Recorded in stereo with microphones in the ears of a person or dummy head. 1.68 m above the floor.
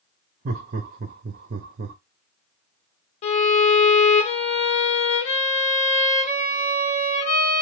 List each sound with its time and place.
0.5 s laughter: 50° right (ahead or behind), 0.8 m
3.2 s a violin: 40° left (ahead or behind), 1.5 m